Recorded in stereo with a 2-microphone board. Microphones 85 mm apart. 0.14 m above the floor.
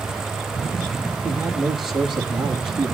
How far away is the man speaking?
About 4.5 m.